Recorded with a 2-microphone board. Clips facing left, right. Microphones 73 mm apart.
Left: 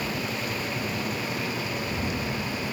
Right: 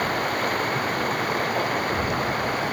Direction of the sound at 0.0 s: 55° right (ahead or behind).